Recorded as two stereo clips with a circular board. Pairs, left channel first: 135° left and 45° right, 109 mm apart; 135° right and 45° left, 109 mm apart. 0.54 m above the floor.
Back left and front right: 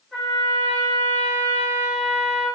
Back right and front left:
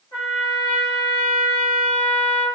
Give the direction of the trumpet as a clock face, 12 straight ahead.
4 o'clock.